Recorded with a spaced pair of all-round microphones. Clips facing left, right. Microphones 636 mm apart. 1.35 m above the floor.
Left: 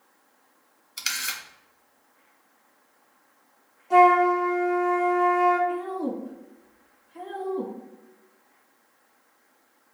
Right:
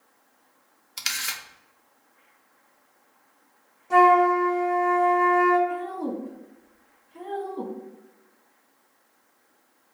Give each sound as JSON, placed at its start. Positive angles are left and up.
{"t": 1.0, "sound": "a camera shutter", "side_deg": -30, "distance_m": 0.5}
{"t": 3.9, "sound": "a flute", "side_deg": -45, "distance_m": 1.4}
{"t": 5.7, "sound": "a woman speaking", "side_deg": 15, "distance_m": 1.3}